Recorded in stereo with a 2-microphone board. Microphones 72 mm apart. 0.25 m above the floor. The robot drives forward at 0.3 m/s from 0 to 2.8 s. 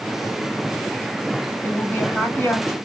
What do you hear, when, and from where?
1.6 s a woman speaking: 30° left (ahead or behind), 1.1 m